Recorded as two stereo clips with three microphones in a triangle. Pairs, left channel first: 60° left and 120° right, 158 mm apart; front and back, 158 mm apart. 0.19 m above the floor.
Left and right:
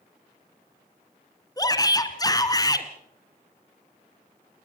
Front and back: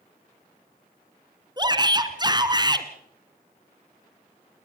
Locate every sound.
1.6 s a shout: 120° left, 2.0 m